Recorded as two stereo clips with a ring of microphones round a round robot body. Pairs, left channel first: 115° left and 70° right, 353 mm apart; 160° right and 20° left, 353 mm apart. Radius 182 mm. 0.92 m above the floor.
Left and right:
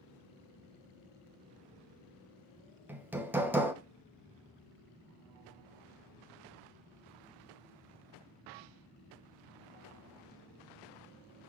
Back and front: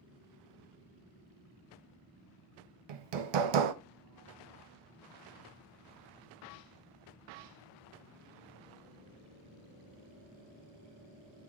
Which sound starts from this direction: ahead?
Hammering, at 2.9 s.